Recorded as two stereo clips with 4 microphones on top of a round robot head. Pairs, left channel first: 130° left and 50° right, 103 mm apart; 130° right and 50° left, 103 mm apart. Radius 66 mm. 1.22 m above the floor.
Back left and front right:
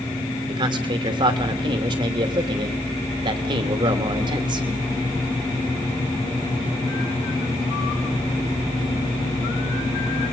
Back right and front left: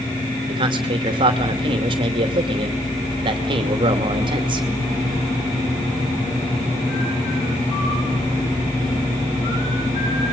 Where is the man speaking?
Straight ahead, 2.5 m.